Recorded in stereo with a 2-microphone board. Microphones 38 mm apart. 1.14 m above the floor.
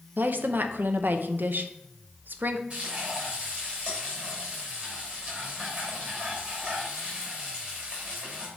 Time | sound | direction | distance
0.2 | a woman speaking | 65° right (ahead or behind) | 0.7 m
2.7 | frying | 30° right (ahead or behind) | 3.5 m